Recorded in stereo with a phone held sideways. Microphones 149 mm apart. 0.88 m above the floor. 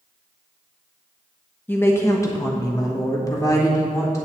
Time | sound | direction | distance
1.7 | a woman speaking | 15° left (ahead or behind) | 0.9 m